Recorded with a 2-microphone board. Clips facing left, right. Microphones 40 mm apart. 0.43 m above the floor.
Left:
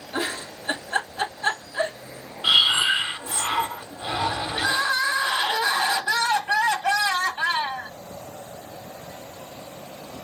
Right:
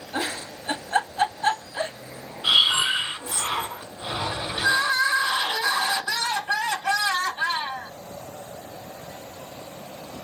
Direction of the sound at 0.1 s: 25° left (ahead or behind).